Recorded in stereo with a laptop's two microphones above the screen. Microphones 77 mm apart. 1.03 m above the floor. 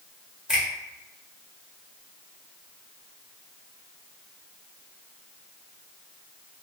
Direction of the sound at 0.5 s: 5° right (ahead or behind).